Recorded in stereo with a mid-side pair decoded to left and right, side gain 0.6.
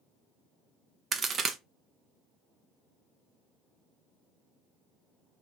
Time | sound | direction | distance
1.1 | a crack | 40° right | 0.6 m